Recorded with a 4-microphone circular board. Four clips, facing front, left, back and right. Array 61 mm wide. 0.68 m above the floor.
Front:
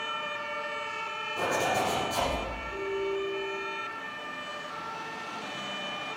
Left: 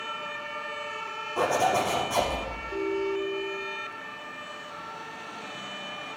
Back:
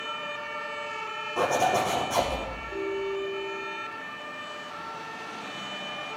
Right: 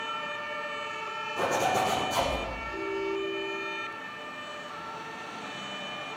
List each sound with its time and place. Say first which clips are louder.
1.4 s a zipper: left 3 dB, back 4 dB; 130° left, 6 m
2.7 s a ringtone: left 4 dB, back 1 dB; 105° left, 1.7 m